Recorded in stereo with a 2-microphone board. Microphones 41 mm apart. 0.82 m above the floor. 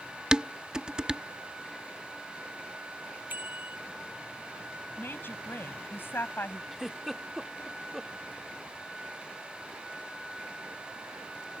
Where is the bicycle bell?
50° right (ahead or behind).